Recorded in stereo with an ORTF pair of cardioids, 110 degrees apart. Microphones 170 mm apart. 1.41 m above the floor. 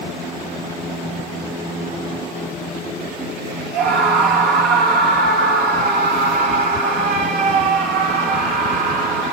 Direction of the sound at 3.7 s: 70° right.